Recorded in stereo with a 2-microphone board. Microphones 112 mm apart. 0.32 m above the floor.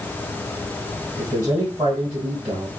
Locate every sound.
1.2 s a man speaking: 45° right (ahead or behind), 1.7 m